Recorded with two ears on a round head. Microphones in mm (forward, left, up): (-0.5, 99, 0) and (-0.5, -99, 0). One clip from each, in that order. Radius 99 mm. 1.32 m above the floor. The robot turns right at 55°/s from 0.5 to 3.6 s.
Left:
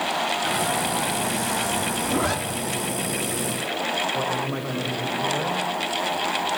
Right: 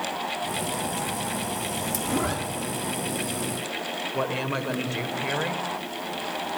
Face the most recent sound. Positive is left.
turn(degrees=-60)  # may be behind; listen again after turning